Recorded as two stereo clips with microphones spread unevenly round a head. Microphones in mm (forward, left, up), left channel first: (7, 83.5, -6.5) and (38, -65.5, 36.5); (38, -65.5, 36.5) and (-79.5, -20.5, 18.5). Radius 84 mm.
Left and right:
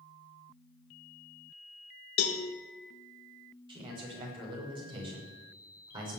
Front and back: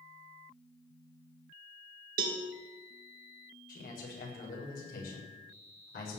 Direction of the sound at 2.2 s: 130° left.